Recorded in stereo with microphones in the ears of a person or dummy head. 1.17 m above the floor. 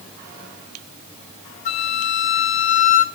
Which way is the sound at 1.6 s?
55° left (ahead or behind).